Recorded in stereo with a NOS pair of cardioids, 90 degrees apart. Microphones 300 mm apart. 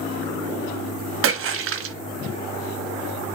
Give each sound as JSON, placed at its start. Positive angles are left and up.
{"t": 1.2, "sound": "a splash", "azimuth_deg": -45, "distance_m": 0.9}